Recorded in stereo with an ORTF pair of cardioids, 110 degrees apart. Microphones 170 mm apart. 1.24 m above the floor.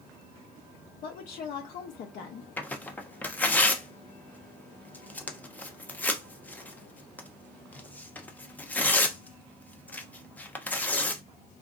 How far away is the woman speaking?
About 0.6 m.